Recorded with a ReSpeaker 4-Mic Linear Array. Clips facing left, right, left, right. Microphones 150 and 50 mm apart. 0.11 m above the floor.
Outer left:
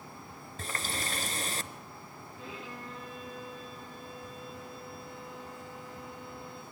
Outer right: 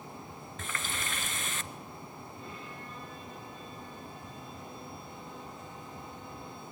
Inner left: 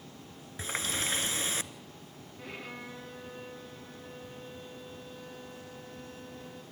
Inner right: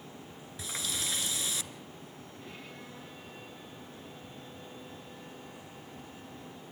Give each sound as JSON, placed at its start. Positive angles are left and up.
{"t": 0.6, "sound": "a running tap", "side_deg": 35, "distance_m": 1.0}
{"t": 2.4, "sound": "a violin", "side_deg": 90, "distance_m": 5.0}